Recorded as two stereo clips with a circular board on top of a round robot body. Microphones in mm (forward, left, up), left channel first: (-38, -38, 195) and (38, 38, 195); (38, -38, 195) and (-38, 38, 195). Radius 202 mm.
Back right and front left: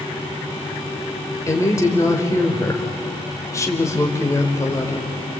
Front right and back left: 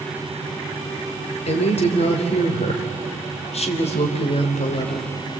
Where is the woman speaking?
70° right, 3 m.